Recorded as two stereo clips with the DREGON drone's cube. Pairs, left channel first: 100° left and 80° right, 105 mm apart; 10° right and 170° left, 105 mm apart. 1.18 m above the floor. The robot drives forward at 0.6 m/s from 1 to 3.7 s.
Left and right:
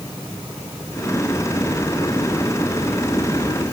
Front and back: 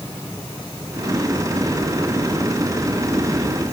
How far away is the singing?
I don't hear singing.